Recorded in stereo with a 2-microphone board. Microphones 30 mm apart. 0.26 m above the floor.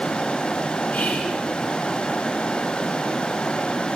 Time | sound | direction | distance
0.9 | whispering | 55° left (ahead or behind) | 2.5 m